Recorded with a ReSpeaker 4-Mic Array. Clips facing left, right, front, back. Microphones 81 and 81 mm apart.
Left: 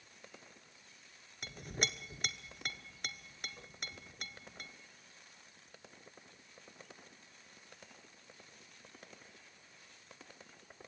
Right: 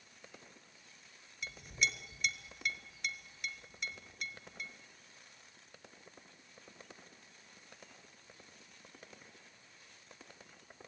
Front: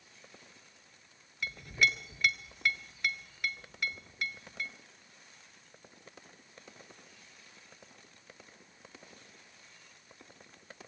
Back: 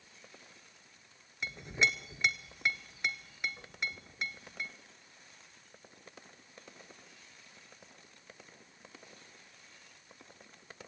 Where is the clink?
115° left, 1.3 m.